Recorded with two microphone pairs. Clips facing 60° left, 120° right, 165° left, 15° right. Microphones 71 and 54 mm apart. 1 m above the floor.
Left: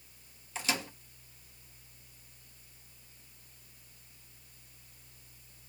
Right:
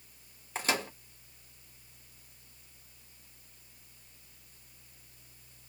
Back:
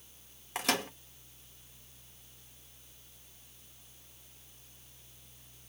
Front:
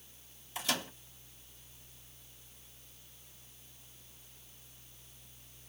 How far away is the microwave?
About 1.2 m.